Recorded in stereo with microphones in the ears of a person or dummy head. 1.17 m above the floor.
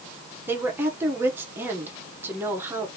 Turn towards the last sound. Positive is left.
turn(degrees=-10)  # may be behind; listen again after turning